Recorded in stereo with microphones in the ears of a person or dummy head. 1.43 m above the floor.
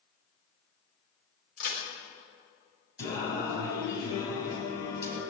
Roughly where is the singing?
Left.